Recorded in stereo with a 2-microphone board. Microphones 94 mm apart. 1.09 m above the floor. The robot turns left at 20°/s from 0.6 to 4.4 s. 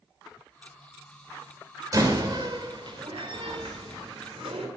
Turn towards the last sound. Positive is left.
turn(degrees=-85)